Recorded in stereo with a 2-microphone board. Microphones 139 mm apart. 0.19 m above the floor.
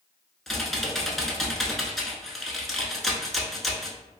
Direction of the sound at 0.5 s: Centre (ahead or behind).